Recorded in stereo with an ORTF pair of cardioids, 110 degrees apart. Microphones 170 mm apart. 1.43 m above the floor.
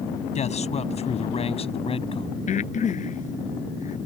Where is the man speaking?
40° left; by 2.3 s 30° left.